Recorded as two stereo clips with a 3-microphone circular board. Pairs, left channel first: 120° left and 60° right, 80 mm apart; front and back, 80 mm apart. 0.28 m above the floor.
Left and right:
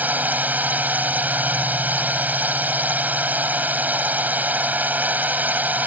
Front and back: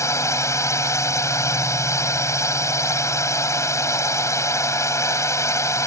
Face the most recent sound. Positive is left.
turn(degrees=-5)